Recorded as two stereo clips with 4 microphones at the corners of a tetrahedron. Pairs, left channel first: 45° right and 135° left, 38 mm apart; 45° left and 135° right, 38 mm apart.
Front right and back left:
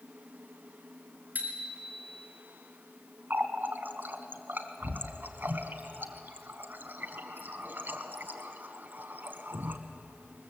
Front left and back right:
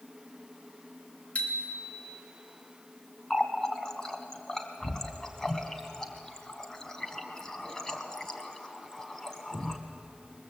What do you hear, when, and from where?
1.4 s a bicycle bell: 100° left, 3 m
3.3 s a running tap: 120° left, 1.5 m